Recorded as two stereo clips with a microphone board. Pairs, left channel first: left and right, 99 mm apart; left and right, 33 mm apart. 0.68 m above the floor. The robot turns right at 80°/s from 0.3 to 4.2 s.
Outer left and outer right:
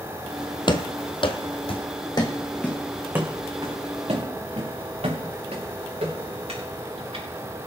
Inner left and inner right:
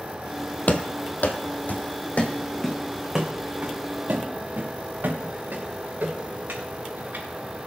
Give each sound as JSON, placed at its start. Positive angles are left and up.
{"t": 0.7, "sound": "running footsteps", "side_deg": 50, "distance_m": 1.0}